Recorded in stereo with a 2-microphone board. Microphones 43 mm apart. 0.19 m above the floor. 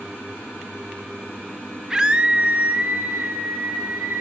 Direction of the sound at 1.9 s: 10° right (ahead or behind).